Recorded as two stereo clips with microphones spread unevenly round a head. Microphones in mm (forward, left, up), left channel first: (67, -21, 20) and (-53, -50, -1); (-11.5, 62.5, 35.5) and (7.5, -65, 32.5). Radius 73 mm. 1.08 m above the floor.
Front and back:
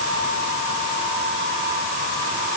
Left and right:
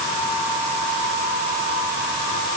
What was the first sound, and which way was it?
Only background noise.